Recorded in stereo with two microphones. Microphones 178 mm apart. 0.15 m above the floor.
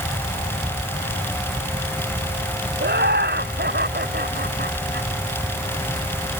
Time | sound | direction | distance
2.8 | laughter | 60° right (ahead or behind) | ?